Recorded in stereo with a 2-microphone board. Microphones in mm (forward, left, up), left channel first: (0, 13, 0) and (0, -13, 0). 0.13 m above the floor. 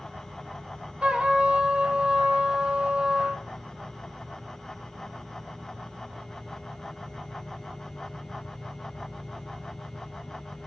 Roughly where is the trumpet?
Right.